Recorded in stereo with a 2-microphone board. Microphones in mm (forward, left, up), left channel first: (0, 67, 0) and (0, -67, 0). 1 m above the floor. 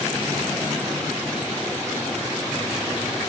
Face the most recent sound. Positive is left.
No sound to turn to.